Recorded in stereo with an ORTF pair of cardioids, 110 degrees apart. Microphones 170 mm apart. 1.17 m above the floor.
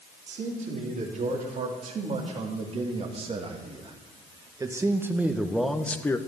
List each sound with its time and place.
0.3 s a man speaking: 50° right, 3.5 m; by 6.2 s 20° left, 1.1 m